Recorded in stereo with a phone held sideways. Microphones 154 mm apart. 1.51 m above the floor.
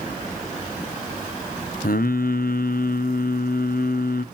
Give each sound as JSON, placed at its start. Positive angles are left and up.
{"t": 1.8, "sound": "singing", "side_deg": 70, "distance_m": 0.5}